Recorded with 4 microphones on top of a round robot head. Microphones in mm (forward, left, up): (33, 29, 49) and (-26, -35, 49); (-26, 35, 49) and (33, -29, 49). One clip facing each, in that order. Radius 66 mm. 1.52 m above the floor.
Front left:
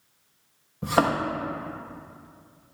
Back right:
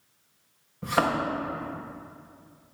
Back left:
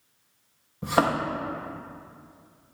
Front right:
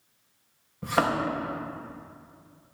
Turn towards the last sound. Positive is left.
turn(degrees=85)